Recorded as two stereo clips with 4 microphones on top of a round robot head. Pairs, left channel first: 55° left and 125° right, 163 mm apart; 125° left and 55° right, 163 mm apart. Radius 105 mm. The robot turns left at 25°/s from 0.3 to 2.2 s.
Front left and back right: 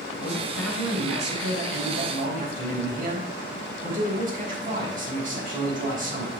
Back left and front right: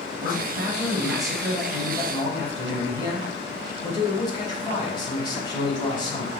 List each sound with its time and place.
0.2 s a man speaking: 120° right, 4 m; by 6.3 s 170° right, 4 m